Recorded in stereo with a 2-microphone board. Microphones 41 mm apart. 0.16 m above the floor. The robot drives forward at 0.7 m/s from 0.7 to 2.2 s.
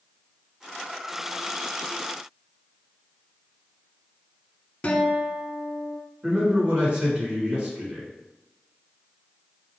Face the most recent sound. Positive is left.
turn(degrees=-30)  # may be behind; listen again after turning